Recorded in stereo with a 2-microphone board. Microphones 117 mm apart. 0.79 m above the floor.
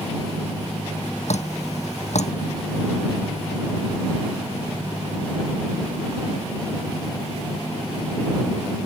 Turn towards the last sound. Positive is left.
turn(degrees=70)  # may be behind; listen again after turning